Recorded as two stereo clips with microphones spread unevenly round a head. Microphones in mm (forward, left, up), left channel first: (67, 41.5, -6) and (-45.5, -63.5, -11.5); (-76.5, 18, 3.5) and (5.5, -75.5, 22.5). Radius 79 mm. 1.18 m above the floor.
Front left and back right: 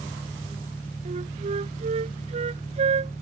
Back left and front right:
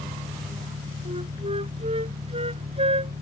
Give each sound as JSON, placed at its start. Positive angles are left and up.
{"t": 0.0, "sound": "an engine running", "azimuth_deg": -35}
{"t": 1.1, "sound": "a flute", "azimuth_deg": -90}